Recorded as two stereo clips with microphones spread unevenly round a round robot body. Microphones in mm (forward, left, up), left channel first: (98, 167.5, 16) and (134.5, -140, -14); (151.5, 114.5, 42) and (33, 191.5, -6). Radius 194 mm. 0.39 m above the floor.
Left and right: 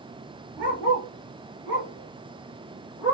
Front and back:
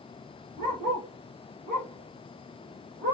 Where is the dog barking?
130° right, 2 m; by 3.1 s 160° right, 3.5 m.